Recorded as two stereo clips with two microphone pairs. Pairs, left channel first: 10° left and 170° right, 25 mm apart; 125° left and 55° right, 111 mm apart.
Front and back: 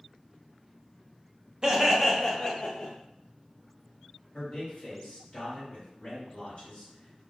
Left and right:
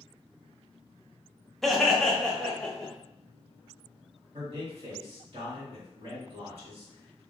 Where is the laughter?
155° right, 0.5 m; by 2.9 s 45° left, 0.7 m.